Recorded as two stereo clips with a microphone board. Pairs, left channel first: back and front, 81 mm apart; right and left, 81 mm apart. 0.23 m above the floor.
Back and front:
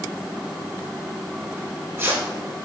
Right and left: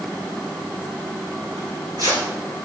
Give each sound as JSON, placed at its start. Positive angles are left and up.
{"t": 1.6, "sound": "tearing paper", "azimuth_deg": 60, "distance_m": 4.5}